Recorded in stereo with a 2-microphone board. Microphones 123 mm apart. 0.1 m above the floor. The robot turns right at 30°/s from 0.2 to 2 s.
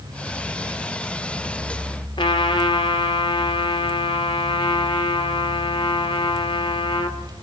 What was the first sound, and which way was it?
A trumpet, 40° left (ahead or behind).